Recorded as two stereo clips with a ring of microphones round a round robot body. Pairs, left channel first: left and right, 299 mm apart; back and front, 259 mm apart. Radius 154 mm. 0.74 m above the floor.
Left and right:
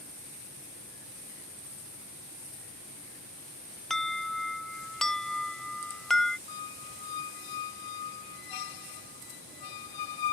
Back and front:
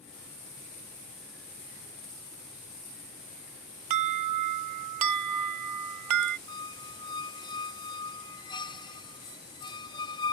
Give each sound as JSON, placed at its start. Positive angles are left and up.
{"t": 3.9, "sound": "an alarm", "azimuth_deg": 0}
{"t": 6.5, "sound": "a squeak", "azimuth_deg": 105}